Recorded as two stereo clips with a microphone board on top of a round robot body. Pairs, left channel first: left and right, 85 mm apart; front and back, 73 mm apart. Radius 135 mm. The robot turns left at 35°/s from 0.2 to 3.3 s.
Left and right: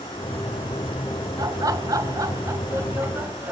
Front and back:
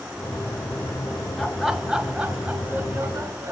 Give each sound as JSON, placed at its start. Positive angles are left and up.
{"t": 1.4, "sound": "laughter", "azimuth_deg": -90, "distance_m": 1.2}